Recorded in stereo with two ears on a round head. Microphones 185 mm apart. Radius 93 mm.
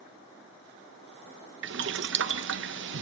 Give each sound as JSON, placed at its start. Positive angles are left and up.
{"t": 1.6, "sound": "boiling", "side_deg": -60, "distance_m": 0.6}